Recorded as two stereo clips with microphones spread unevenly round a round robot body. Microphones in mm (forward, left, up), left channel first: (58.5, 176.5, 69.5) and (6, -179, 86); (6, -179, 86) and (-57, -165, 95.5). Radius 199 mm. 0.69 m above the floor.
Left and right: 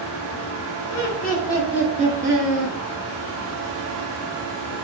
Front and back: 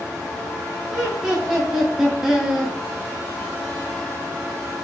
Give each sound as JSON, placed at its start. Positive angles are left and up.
{"t": 0.9, "sound": "laughter", "azimuth_deg": 70, "distance_m": 1.4}